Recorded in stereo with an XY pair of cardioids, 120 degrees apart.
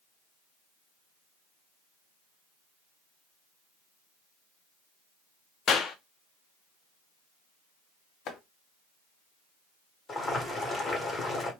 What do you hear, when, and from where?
5.7 s a clap: 50° left, 0.6 m
8.3 s chopping: 60° left, 0.8 m
10.1 s boiling: 30° left, 1.3 m